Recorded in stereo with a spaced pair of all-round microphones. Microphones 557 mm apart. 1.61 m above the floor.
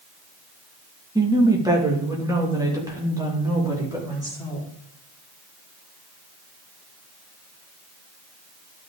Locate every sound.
1.1 s a woman speaking: 5° right (ahead or behind), 1.5 m